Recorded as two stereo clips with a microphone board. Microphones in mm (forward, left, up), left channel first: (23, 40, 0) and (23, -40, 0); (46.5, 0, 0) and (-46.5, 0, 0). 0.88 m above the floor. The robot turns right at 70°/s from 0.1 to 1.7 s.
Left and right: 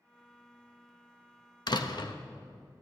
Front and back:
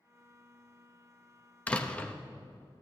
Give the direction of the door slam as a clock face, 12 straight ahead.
10 o'clock.